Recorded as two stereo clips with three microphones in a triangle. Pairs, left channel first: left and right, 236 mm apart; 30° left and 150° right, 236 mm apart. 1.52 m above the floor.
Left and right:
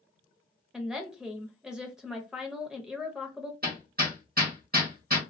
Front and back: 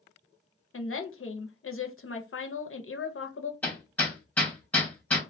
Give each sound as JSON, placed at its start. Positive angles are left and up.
{"t": 0.7, "sound": "a woman speaking", "azimuth_deg": -5, "distance_m": 0.6}
{"t": 3.6, "sound": "hammering", "azimuth_deg": -55, "distance_m": 1.1}